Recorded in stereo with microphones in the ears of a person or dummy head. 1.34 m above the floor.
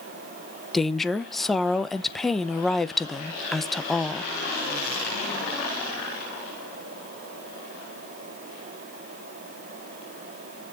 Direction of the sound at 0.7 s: 5° left (ahead or behind).